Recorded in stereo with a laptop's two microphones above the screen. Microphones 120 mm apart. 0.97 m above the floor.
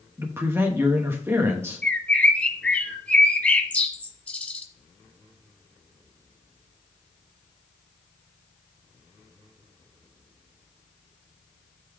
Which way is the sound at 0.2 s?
20° right (ahead or behind).